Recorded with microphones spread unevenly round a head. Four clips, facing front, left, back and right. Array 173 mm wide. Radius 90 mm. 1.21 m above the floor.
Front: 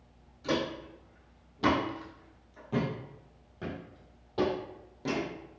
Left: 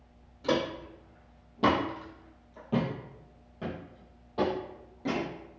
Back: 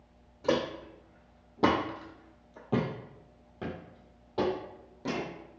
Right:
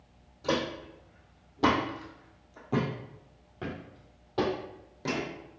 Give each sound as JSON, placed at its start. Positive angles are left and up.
{"t": 0.4, "sound": "footsteps", "azimuth_deg": 170, "distance_m": 2.0}